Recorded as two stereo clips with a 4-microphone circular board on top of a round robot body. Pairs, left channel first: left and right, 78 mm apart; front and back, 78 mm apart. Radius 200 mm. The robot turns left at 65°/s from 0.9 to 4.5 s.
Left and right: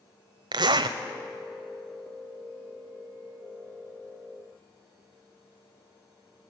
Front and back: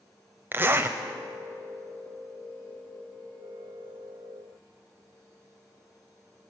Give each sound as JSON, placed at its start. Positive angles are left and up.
{"t": 0.5, "sound": "a zipper", "azimuth_deg": -115, "distance_m": 0.5}